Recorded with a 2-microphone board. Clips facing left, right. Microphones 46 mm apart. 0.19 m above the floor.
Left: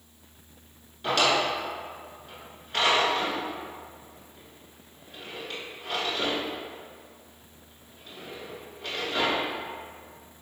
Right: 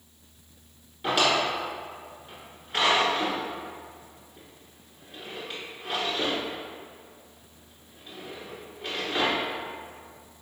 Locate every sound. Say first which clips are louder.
1.0 s a drawer: even; 10° right (ahead or behind), 1.1 m